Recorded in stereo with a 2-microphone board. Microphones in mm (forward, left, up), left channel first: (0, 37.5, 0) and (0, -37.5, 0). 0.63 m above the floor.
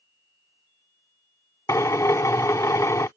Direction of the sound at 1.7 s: 45° left (ahead or behind).